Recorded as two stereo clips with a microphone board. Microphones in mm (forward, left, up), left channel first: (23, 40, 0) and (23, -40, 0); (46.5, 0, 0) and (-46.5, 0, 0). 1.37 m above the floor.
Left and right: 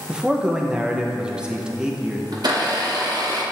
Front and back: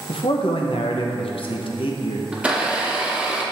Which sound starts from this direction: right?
A blender, at 2.3 s.